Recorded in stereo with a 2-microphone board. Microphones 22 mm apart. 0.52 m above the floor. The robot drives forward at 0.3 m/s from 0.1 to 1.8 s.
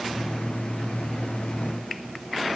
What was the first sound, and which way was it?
Only background noise.